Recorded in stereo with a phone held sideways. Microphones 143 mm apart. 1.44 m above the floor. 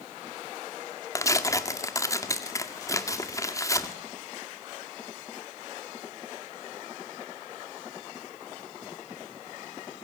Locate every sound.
1.1 s tearing paper: 20° left (ahead or behind), 1.9 m